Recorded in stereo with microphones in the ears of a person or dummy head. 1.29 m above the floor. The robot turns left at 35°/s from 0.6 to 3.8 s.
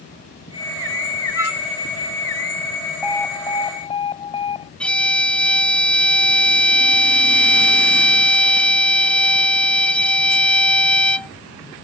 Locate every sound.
1.4 s a flute: 15° right (ahead or behind); by 1.6 s 5° right (ahead or behind)
3.0 s an alarm: centre (ahead or behind); by 4.7 s 30° left (ahead or behind)
4.8 s a violin: centre (ahead or behind)